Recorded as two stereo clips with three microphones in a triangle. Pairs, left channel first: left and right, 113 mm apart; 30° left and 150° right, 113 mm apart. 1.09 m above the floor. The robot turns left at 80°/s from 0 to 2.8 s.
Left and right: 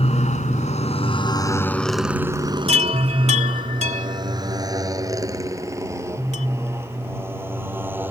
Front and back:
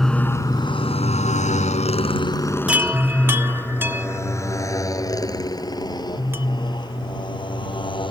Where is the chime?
70° right; by 6.5 s 80° right.